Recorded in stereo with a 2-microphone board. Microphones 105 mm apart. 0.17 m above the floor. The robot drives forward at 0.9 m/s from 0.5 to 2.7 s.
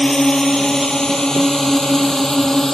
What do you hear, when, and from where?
0.0 s a drone: 5° left (ahead or behind)